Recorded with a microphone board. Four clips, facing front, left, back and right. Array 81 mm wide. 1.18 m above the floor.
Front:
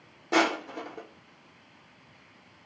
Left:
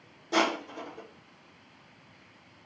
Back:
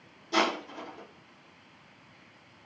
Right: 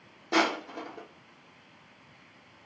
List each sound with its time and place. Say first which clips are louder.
0.3 s crushing: even, front 3 dB; 35° right, 0.9 m